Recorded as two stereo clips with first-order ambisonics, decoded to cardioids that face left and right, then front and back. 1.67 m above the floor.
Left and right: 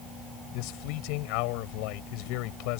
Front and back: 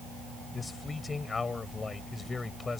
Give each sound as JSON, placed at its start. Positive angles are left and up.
{"t": 0.5, "sound": "a man speaking", "azimuth_deg": 75}